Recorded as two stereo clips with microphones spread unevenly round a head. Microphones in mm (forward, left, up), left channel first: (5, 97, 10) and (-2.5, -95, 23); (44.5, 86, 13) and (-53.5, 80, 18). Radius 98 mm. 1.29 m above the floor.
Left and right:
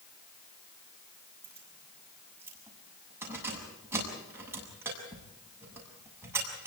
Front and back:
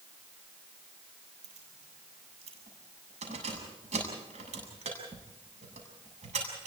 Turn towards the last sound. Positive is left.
turn(degrees=-170)